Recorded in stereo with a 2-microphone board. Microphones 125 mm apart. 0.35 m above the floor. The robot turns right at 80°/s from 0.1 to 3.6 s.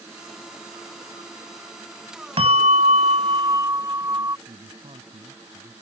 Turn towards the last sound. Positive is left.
turn(degrees=-55)  # may be behind; listen again after turning